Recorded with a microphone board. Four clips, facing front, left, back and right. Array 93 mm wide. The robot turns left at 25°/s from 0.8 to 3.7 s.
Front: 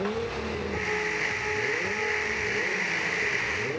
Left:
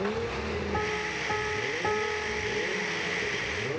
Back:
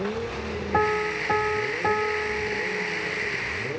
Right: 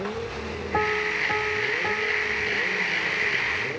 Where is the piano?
155° right, 2.5 m; by 3.3 s 145° left, 2.5 m.